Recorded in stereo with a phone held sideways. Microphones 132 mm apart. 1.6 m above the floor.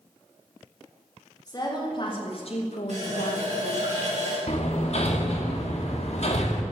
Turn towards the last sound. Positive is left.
turn(degrees=55)  # may be behind; listen again after turning